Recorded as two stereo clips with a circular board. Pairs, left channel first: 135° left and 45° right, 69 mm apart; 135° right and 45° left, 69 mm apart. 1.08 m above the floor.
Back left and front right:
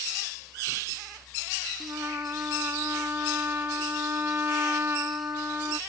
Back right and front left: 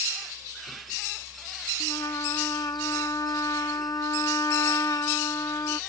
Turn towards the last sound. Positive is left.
turn(degrees=-105)